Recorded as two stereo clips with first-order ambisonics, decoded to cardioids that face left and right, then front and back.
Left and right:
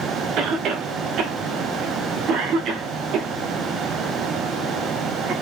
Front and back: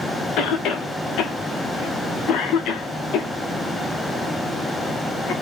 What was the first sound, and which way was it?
A cough, 45° right.